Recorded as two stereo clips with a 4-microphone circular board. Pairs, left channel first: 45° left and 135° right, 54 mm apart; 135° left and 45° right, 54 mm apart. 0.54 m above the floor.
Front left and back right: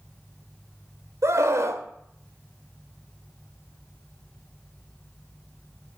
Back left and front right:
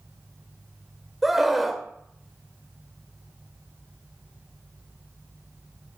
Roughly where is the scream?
Behind right.